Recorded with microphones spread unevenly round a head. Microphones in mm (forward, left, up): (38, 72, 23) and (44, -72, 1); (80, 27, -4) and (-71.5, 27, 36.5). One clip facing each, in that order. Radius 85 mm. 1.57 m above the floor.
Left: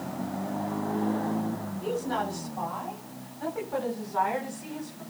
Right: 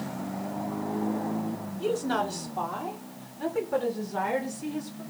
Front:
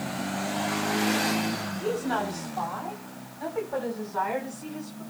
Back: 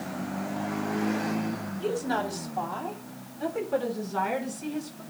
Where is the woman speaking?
115° right, 4.5 m; by 5.0 s 145° right, 7.5 m.